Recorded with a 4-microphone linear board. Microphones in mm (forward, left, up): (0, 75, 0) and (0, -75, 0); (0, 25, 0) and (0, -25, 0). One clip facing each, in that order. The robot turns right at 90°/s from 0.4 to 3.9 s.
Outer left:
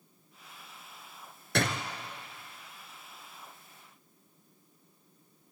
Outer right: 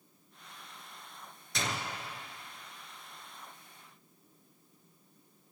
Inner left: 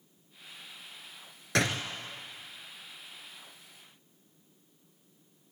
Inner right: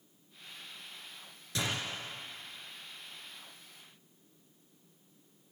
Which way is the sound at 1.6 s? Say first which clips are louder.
Outer left 6 dB, inner left 6 dB; 65° left (ahead or behind).